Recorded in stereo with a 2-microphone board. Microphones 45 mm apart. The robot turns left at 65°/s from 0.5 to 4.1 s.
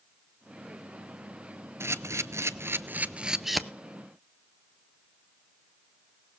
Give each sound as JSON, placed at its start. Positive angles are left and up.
{"t": 1.8, "sound": "a camera shutter", "side_deg": -65, "distance_m": 0.5}